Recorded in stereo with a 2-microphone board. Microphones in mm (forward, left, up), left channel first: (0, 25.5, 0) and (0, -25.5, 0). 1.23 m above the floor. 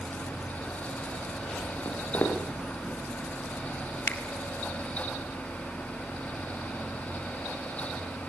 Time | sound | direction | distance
1.9 | footsteps | 70° left (ahead or behind) | 7.5 m
4.1 | a finger snap | 30° left (ahead or behind) | 5 m